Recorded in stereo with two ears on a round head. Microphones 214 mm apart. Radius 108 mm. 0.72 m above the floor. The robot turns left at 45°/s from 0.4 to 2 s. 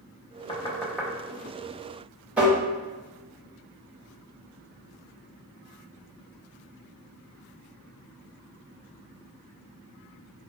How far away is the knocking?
About 0.6 m.